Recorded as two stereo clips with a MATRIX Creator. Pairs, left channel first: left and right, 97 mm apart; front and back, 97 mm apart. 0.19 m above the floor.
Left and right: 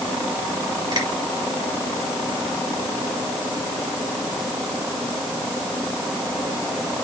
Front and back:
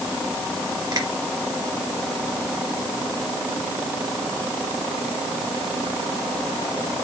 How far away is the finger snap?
About 4.5 m.